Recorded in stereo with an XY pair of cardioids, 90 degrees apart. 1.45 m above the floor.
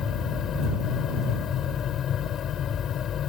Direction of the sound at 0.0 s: 65° left.